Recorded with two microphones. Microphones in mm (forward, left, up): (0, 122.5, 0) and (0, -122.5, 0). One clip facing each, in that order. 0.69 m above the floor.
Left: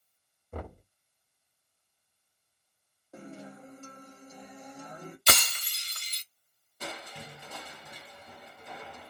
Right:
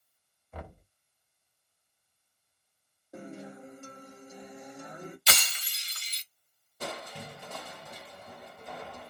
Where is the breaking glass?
50° left (ahead or behind), 0.8 m.